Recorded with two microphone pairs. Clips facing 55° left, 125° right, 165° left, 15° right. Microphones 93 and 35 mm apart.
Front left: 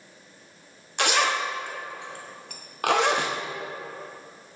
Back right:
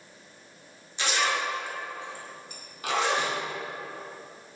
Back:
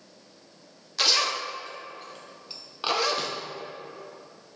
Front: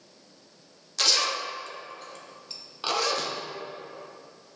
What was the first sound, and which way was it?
A zipper, 80° left.